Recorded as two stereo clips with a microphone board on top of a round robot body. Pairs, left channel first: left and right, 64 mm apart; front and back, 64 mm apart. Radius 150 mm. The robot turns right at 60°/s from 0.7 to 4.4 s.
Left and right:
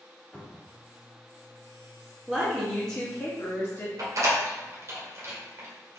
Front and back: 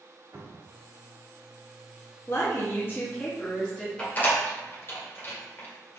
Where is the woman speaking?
20° right, 1.2 m; by 3.9 s 75° left, 1.2 m.